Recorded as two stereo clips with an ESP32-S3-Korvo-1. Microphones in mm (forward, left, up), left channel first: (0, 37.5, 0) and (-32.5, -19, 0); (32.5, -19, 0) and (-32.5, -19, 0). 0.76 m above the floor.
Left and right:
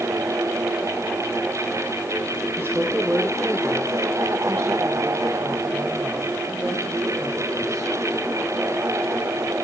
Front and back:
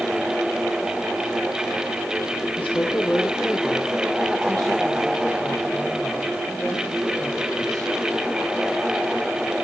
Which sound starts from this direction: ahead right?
A woman speaking, at 2.6 s.